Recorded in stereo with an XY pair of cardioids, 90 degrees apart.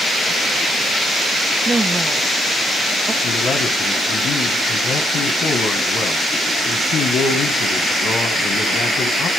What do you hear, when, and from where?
1.6 s a woman speaking: 35° right, 1.0 m
3.2 s a man speaking: 70° left, 1.3 m